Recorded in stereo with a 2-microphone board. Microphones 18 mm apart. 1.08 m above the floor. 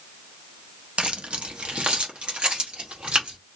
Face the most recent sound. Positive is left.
turn(degrees=-75)  # may be behind; listen again after turning